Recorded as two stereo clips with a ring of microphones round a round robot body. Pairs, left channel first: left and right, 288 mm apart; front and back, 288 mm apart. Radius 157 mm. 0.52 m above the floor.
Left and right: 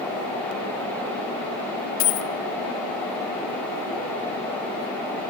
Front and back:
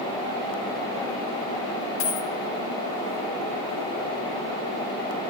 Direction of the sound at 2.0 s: 50° left.